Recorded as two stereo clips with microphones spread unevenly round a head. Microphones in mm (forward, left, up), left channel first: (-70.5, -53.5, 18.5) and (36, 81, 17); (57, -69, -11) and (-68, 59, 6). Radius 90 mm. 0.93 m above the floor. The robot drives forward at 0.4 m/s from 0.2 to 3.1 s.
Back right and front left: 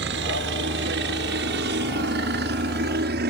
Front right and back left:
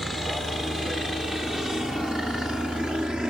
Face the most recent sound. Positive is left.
turn(degrees=45)